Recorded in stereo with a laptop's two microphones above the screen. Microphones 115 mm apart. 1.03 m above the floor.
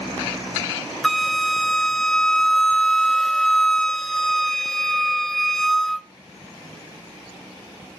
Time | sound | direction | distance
1.0 | a flute | 5° left (ahead or behind) | 0.6 m